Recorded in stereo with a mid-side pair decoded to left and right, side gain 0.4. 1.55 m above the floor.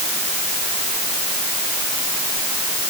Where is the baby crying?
I don't hear a baby crying.